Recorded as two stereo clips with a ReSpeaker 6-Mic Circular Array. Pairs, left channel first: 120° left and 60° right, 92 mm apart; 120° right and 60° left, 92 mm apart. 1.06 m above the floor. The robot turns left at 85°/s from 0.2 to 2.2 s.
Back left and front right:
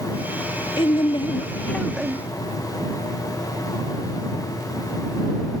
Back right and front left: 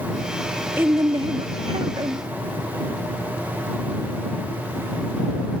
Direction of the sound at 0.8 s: 125° left.